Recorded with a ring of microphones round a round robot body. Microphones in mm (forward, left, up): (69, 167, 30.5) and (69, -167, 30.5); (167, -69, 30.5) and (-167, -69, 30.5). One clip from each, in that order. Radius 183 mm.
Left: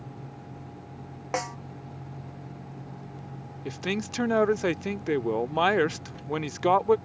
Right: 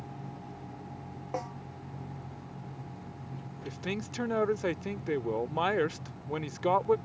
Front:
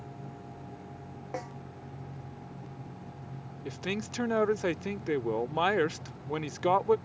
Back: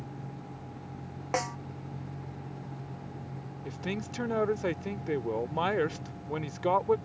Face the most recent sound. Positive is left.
turn(degrees=45)